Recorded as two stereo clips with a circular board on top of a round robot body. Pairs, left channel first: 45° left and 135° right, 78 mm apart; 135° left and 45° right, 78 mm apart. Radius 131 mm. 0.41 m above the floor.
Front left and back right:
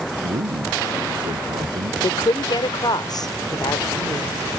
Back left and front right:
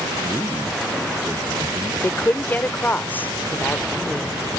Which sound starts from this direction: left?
A woman speaking, at 2.0 s.